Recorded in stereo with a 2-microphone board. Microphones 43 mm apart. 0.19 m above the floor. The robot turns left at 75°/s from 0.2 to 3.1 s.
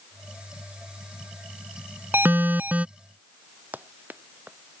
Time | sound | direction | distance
2.1 | an alarm | 80° right | ?
3.7 | running footsteps | 45° right (ahead or behind) | ?